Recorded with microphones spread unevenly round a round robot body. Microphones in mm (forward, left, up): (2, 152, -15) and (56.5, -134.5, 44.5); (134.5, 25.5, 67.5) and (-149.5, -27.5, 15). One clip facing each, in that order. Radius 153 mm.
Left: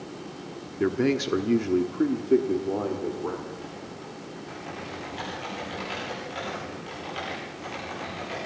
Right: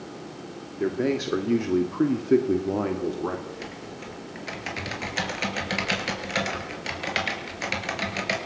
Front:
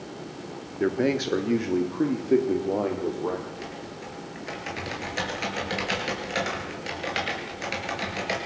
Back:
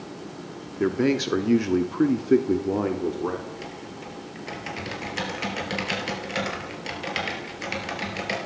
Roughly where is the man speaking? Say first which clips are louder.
Left 1 dB, back 2 dB; behind left.